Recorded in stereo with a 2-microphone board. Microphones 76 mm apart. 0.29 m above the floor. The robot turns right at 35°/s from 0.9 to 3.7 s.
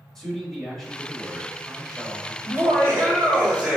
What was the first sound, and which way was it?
A man speaking, 5° left (ahead or behind).